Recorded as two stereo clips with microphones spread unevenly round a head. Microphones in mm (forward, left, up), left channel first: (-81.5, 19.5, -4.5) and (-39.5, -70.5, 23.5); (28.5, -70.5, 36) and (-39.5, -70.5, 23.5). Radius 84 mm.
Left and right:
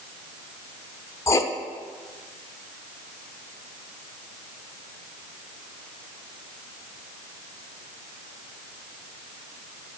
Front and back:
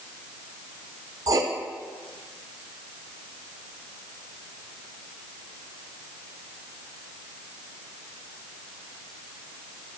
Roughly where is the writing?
Behind.